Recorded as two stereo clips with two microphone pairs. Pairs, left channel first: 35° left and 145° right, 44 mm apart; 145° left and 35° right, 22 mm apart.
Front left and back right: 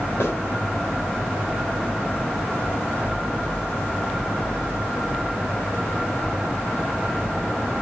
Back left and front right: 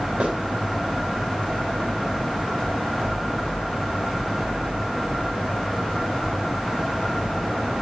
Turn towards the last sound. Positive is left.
turn(degrees=10)